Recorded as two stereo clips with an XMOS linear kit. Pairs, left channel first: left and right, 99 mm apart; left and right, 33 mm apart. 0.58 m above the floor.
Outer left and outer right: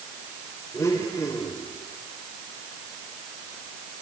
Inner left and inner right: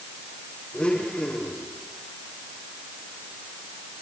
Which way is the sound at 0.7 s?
30° left (ahead or behind).